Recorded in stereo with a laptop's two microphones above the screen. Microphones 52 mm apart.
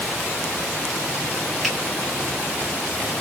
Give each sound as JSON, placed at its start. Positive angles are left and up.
{"t": 1.6, "sound": "a finger snap", "side_deg": 5, "distance_m": 1.8}